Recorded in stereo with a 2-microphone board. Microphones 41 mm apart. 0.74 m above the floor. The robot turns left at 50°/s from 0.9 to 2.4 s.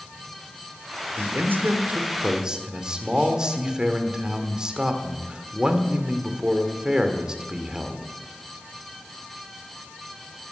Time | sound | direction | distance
1.2 | a man speaking | 100° right | 1.9 m